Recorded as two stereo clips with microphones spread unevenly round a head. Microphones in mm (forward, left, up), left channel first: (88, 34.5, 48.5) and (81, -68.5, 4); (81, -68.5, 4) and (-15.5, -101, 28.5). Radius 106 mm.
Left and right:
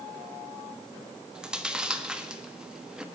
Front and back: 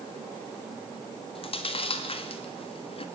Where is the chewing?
10° right, 1.4 m.